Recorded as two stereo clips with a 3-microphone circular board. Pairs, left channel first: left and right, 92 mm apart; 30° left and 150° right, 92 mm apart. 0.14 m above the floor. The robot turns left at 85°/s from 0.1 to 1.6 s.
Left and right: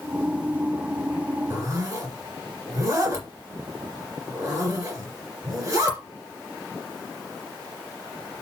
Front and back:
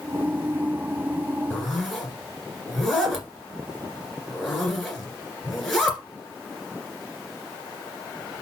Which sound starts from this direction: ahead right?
A zipper, at 1.5 s.